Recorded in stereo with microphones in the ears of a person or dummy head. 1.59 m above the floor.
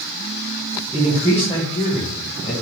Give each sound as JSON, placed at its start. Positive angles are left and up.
{"t": 0.9, "sound": "a man speaking", "side_deg": -5, "distance_m": 1.1}